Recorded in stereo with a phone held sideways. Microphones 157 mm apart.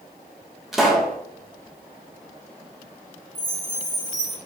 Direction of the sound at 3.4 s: 50° left (ahead or behind).